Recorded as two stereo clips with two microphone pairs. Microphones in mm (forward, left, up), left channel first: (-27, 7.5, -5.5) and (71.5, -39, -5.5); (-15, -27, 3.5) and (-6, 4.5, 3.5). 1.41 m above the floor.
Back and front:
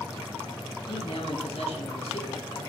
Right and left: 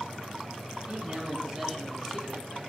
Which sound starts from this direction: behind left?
A man speaking, at 0.9 s.